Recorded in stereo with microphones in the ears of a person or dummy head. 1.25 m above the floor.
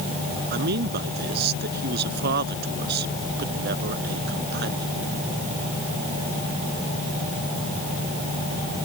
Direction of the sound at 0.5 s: 65° right (ahead or behind).